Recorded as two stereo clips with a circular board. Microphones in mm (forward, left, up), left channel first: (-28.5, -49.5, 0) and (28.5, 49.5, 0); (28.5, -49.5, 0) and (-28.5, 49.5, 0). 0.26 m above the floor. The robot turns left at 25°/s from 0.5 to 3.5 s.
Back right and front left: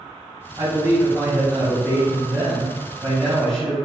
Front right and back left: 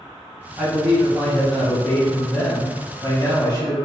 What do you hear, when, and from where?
0.6 s a man speaking: 40° left, 1.2 m; by 3.8 s 30° right, 1.2 m